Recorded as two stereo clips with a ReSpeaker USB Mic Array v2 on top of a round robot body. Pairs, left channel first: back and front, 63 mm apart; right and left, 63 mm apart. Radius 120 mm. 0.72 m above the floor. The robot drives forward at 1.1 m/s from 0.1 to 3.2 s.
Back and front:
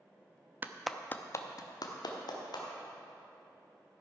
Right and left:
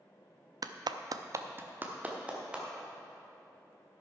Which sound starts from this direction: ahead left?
A clap, at 0.6 s.